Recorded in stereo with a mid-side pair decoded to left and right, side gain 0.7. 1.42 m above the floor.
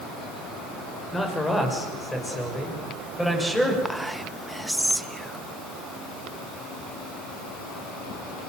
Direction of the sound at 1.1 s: 15° left.